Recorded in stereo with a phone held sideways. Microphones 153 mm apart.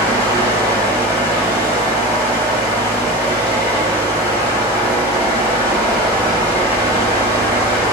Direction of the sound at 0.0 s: 20° right (ahead or behind).